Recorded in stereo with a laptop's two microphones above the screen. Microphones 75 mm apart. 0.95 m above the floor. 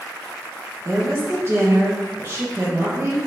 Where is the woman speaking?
35° right (ahead or behind), 0.8 m.